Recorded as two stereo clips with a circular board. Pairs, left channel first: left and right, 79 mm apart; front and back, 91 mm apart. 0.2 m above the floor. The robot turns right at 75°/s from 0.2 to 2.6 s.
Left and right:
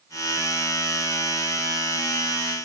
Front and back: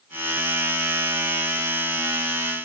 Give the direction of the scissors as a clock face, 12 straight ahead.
I don't hear scissors.